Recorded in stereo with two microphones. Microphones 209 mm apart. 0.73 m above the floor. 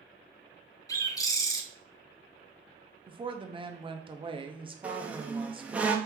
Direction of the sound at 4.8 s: 5° right (ahead or behind).